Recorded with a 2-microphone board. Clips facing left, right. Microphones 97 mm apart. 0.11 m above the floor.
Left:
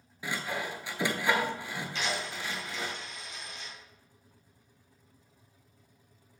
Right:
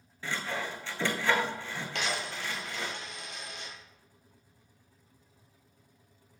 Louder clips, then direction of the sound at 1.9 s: Right 1 dB; 65° right (ahead or behind).